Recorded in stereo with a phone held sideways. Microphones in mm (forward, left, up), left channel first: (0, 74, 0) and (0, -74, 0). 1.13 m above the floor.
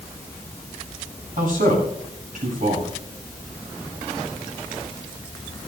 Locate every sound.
1.4 s a man speaking: 65° right (ahead or behind), 9 m